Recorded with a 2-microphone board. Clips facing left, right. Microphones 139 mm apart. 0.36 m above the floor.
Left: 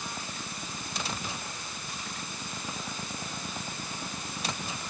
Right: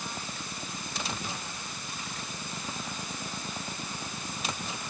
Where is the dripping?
No dripping in this recording.